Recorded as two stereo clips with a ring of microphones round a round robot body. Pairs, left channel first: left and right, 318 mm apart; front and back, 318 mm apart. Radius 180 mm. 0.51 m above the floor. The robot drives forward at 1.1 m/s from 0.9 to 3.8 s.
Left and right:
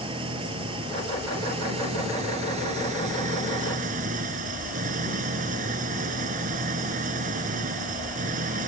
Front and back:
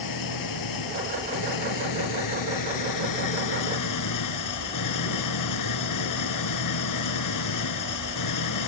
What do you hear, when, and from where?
0.0 s an engine running: 15° right; by 8.7 s 20° right